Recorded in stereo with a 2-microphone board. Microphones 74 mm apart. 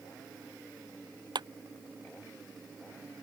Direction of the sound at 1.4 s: 70° right (ahead or behind).